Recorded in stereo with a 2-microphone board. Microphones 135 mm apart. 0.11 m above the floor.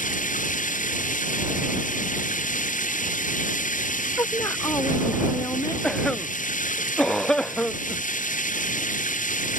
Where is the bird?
I don't hear a bird.